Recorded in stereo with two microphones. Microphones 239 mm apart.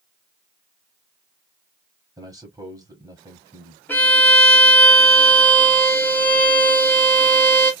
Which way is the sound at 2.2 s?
15° right (ahead or behind).